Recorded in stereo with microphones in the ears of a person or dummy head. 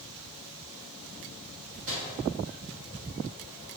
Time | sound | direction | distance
1.9 | a microwave | 40° right (ahead or behind) | 1.1 m